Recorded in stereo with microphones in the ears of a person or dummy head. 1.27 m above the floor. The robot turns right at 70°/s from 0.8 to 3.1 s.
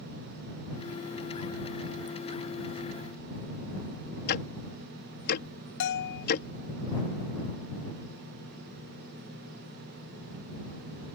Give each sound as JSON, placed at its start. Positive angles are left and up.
{"t": 4.3, "sound": "ticking", "side_deg": 60}
{"t": 5.8, "sound": "a bell", "side_deg": 65}